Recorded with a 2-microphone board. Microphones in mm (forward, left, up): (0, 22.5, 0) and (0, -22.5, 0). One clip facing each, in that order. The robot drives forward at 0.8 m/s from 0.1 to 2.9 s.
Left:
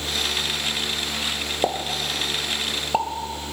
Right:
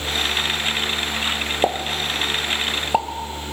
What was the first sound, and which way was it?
A pop, 15° right (ahead or behind).